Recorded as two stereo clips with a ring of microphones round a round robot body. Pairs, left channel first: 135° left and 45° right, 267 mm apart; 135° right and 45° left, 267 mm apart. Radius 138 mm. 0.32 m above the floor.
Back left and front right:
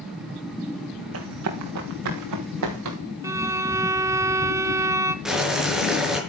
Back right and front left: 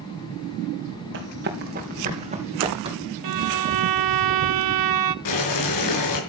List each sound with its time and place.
1.1 s running footsteps: 5° right, 4 m; by 3.0 s 30° right, 6 m
3.2 s a violin: 35° left, 0.7 m
5.2 s boiling: 135° right, 5.5 m